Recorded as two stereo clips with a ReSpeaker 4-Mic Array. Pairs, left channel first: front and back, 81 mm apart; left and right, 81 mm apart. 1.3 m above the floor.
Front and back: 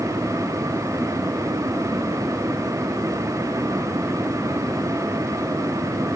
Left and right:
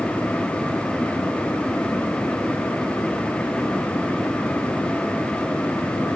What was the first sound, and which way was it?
Only background noise.